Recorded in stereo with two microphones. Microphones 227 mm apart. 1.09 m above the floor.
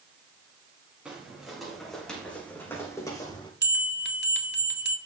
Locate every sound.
1.1 s footsteps: 5° right (ahead or behind), 4.5 m; by 3.5 s 20° left (ahead or behind), 3 m
3.6 s a bell: 50° right (ahead or behind), 1.8 m